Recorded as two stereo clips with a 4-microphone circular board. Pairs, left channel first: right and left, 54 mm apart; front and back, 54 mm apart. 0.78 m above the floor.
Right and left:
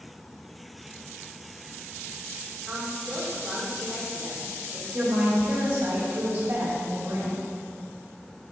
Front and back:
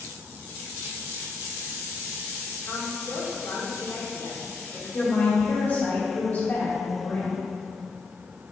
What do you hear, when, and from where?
2.6 s a woman speaking: 5° left, 2 m
4.9 s a woman speaking: 40° left, 2.0 m